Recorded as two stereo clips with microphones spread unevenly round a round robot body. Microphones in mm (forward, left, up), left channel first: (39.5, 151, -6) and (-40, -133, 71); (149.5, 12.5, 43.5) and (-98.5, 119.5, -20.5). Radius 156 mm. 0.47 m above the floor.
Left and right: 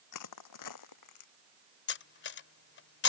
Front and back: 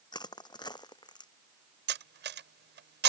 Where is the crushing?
50° left.